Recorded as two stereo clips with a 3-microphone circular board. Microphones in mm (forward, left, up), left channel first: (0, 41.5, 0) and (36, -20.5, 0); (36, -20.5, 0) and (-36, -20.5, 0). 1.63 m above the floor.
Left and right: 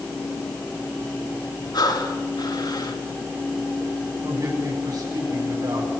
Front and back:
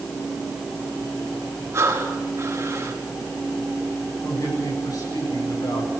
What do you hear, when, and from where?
1.7 s breathing: 130° left, 4 m
4.2 s a man speaking: 30° right, 8.5 m